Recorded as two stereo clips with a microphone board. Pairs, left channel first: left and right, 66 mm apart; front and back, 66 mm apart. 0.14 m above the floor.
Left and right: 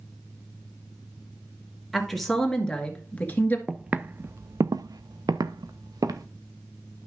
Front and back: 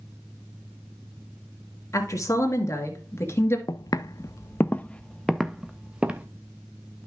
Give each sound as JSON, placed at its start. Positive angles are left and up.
{"t": 1.9, "sound": "a woman speaking", "azimuth_deg": 0, "distance_m": 2.0}
{"t": 3.7, "sound": "footsteps", "azimuth_deg": -10, "distance_m": 0.6}